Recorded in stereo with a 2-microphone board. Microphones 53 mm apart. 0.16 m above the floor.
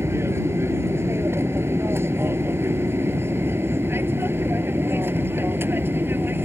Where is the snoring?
No snoring in this recording.